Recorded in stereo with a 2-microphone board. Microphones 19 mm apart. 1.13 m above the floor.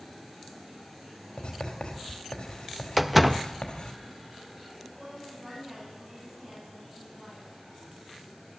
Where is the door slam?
10° right (ahead or behind), 0.5 m.